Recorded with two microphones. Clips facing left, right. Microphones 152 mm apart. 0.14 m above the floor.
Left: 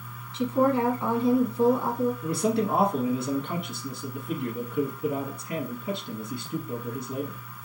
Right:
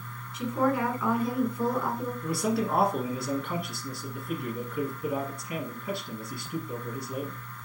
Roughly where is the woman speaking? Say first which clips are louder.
Left 4 dB; left.